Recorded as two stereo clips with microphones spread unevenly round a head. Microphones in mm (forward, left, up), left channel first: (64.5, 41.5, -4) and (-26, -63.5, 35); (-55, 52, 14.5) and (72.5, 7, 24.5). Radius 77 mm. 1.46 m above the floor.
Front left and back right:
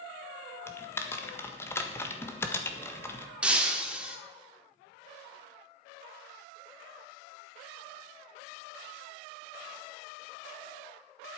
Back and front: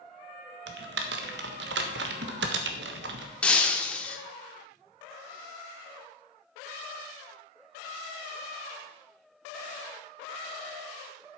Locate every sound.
0.7 s typing on a keyboard: 25° right, 1.5 m
3.4 s breaking glass: 115° right, 1.1 m